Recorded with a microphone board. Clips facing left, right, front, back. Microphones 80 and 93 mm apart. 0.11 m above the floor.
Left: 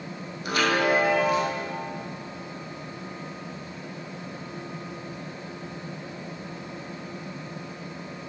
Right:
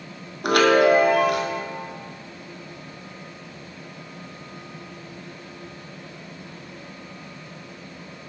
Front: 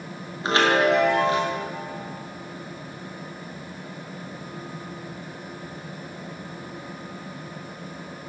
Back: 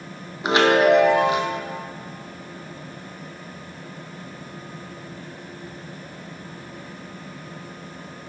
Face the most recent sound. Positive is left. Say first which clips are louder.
# right 7 dB, back 4 dB
turn(degrees=-110)